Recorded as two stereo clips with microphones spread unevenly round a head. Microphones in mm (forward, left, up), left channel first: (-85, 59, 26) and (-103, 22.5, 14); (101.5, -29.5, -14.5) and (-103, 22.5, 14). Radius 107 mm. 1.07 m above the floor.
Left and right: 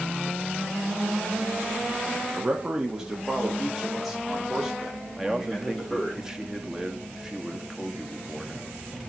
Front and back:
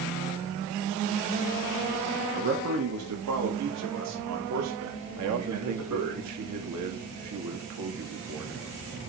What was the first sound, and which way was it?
A man speaking, 160° right.